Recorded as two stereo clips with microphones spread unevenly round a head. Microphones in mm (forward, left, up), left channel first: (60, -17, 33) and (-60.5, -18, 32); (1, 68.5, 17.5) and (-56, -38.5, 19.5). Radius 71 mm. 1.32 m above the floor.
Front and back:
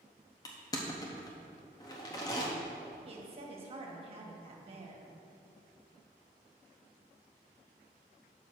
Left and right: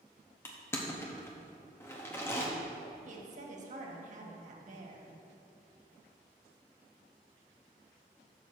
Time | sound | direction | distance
0.5 | crushing | 10° left | 0.7 m
3.0 | a woman speaking | 140° right | 1.4 m